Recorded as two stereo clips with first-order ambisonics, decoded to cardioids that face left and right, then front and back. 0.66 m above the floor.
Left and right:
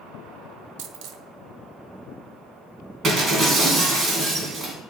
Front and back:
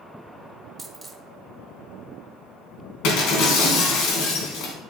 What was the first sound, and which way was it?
A dropped coin, 95° right.